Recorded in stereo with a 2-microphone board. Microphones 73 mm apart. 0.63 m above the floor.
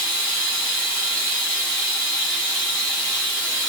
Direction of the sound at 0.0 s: 25° left (ahead or behind).